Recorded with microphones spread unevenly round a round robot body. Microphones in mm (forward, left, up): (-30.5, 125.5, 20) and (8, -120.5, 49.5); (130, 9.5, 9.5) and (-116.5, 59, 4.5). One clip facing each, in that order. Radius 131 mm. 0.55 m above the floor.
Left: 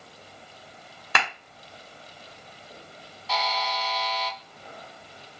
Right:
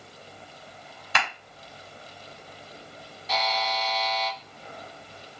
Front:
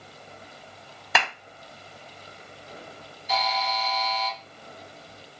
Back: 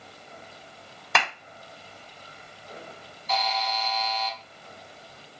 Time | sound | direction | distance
1.1 | a clap | 75° left | 1.6 m
3.3 | a buzzer | 155° right | 2 m